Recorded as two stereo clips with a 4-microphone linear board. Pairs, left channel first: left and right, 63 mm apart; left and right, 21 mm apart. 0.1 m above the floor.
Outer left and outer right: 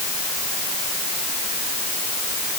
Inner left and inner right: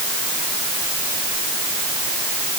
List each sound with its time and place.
Only background noise.